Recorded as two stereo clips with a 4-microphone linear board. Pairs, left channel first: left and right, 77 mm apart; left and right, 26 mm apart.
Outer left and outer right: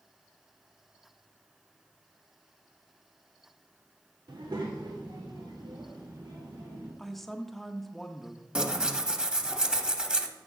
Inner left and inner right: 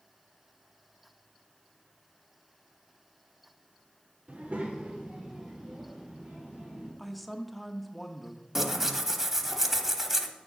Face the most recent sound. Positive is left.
turn(degrees=-15)  # may be behind; listen again after turning